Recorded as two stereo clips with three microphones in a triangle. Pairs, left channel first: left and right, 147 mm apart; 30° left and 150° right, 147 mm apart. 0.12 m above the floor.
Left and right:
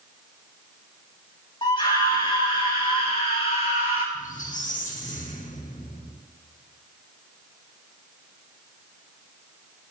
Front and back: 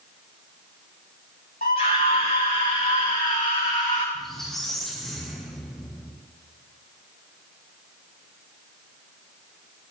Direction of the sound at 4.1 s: 120° left.